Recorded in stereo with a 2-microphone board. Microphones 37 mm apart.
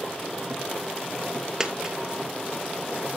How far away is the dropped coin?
About 1.6 m.